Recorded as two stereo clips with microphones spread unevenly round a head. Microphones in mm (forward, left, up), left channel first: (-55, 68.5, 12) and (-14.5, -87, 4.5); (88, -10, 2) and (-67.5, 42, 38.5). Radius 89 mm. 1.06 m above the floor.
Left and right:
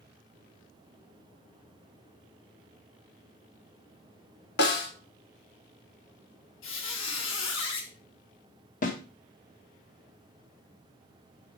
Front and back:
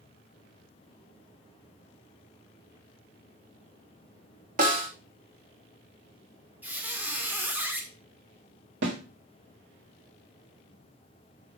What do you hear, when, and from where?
4.6 s a snare drum: 120° left, 2.0 m
6.6 s a squeak: 85° left, 1.7 m
8.8 s a snare drum: 145° left, 2.0 m